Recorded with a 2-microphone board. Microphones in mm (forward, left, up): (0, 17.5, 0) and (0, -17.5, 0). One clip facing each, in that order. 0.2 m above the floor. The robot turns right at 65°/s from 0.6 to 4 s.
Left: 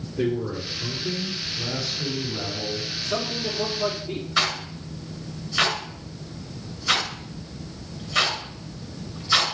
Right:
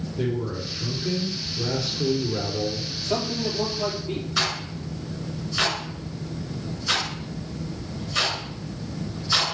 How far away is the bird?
I don't hear a bird.